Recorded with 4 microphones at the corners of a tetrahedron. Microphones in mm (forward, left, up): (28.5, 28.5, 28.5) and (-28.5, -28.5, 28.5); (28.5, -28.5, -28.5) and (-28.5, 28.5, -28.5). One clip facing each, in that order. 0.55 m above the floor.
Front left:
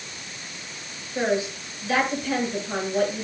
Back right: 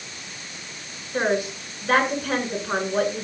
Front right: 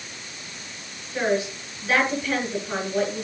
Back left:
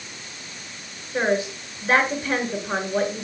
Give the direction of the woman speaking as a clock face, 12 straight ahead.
6 o'clock.